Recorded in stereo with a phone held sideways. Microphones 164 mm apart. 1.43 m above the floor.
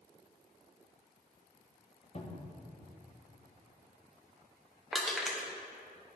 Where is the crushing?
Centre (ahead or behind), 0.8 m.